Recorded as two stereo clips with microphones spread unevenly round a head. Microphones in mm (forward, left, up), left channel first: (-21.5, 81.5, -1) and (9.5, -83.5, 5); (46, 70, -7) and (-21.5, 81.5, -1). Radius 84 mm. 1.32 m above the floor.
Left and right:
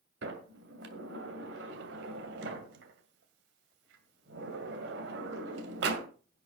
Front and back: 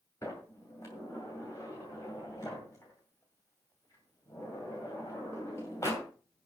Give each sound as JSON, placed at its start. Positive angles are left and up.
{"t": 0.2, "sound": "a sliding door", "azimuth_deg": -80, "distance_m": 2.5}